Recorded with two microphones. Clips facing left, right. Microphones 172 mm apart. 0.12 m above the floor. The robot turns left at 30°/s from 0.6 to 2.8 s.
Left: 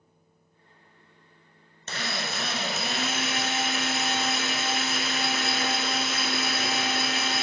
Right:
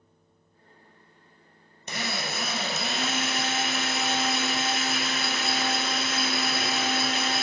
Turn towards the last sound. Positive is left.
turn(degrees=0)  # may be behind; listen again after turning